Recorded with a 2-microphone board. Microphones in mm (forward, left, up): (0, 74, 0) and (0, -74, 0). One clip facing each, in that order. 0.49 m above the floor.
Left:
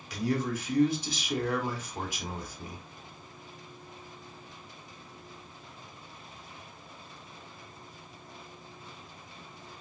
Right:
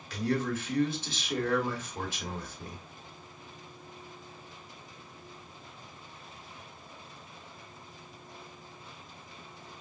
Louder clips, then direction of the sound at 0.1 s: Even; 15° left (ahead or behind).